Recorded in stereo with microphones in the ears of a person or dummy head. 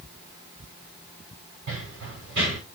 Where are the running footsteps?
80° right, 7 m.